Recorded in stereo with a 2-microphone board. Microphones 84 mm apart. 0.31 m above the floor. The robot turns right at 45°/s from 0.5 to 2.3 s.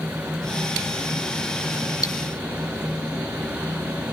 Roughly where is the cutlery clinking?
Left.